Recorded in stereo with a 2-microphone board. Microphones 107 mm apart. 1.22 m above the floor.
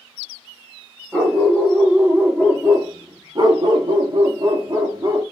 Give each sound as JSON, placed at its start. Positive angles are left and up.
{"t": 1.1, "sound": "a dog barking", "side_deg": -10, "distance_m": 1.9}